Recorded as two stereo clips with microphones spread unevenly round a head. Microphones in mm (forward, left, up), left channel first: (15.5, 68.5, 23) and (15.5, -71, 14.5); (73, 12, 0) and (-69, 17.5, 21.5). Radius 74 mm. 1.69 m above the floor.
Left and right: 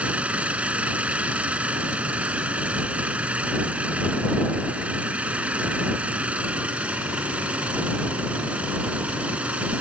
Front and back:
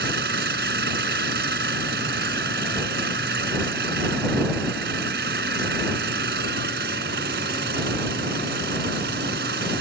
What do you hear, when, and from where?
0.0 s an engine running: 175° right